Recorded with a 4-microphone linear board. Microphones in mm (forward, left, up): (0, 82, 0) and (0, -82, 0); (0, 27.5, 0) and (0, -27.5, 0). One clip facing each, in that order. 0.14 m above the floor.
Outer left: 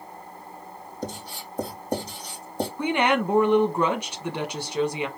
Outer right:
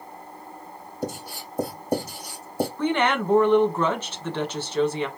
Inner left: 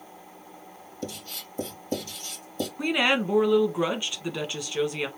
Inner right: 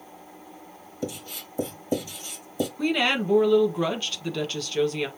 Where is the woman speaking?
15° left (ahead or behind), 1.3 m.